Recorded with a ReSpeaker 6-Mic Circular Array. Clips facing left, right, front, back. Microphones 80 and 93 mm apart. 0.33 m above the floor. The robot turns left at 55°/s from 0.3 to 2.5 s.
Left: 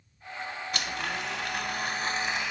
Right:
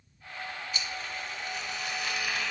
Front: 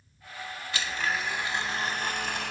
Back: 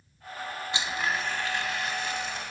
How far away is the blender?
About 0.7 m.